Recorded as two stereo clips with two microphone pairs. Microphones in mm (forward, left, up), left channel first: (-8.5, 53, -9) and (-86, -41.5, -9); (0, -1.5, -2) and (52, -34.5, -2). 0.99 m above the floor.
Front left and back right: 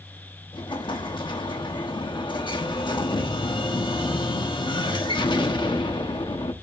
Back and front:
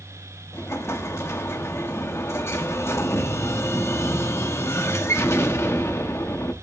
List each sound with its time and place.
0.5 s an explosion: 105° left, 1.2 m